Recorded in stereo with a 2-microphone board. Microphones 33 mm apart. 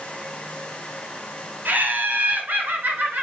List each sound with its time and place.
1.6 s laughter: 70° right (ahead or behind), 3 m; by 3.2 s 65° right (ahead or behind), 2.5 m